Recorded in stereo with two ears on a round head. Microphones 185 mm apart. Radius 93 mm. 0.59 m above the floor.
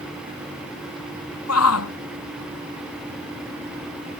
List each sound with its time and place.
1.5 s a shout: 85° left